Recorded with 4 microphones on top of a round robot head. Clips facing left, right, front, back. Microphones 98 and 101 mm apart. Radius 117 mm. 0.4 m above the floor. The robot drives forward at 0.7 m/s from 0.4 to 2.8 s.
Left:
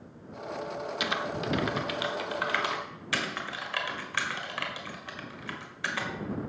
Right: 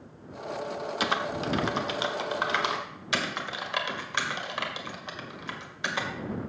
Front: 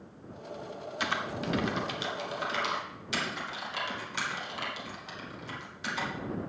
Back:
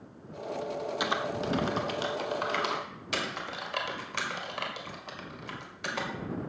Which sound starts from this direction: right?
Typing on a keyboard, at 1.0 s.